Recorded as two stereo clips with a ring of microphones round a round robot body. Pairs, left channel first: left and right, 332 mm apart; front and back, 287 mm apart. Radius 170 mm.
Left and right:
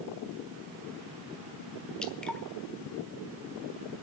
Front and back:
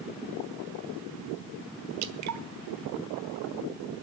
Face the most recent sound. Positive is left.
turn(degrees=175)